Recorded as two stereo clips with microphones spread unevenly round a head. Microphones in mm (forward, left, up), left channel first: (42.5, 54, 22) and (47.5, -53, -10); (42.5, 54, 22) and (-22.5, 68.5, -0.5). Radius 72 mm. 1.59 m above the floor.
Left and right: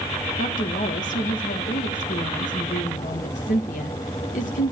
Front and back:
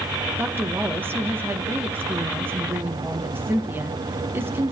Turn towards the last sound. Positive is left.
turn(degrees=110)